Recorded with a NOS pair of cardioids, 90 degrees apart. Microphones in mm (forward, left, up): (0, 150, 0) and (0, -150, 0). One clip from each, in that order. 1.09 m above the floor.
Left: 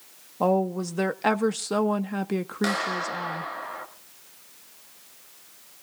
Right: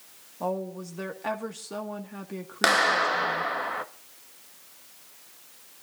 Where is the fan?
I don't hear a fan.